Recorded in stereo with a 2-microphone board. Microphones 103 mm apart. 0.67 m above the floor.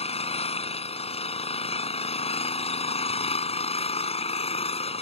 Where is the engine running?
75° left (ahead or behind).